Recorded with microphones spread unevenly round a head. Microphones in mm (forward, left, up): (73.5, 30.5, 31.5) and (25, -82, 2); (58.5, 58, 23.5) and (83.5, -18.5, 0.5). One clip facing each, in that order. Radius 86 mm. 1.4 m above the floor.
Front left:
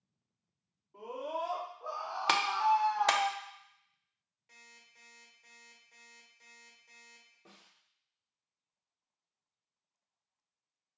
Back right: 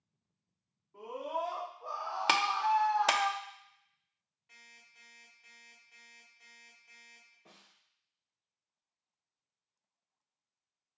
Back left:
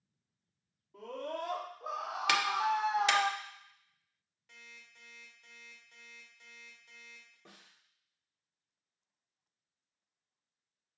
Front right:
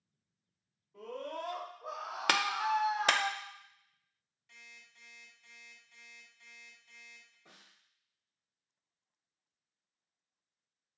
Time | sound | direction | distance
0.9 | a scream | 145° left | 2.5 m
2.3 | a clap | 25° right | 0.6 m
4.5 | an alarm clock | 105° left | 1.6 m
7.5 | a snare drum | 125° left | 1.9 m